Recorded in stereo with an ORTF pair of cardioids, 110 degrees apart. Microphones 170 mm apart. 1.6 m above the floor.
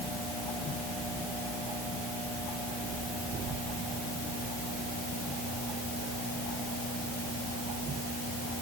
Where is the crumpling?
I don't hear crumpling.